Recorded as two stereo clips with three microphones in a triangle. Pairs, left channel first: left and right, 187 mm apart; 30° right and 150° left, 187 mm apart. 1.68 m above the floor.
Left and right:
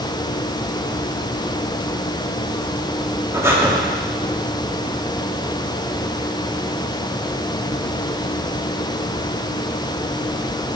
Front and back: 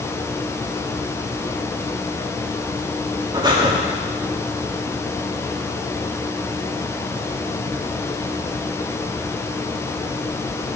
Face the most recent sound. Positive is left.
turn(degrees=-155)